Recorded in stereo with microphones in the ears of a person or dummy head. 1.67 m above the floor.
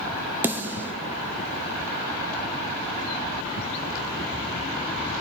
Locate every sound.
0.4 s a snare drum: 5° right (ahead or behind), 1.1 m